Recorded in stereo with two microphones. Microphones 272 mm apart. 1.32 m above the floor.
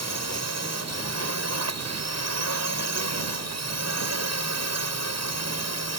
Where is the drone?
80° right.